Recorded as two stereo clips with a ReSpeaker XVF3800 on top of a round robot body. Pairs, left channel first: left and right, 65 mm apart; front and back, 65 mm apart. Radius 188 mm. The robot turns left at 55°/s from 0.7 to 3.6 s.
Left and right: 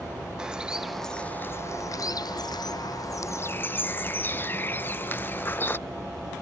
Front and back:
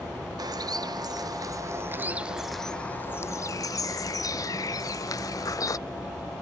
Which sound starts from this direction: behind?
A bird, at 0.4 s.